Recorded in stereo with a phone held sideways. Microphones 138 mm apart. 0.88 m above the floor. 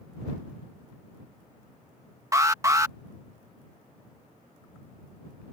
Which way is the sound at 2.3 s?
25° right (ahead or behind).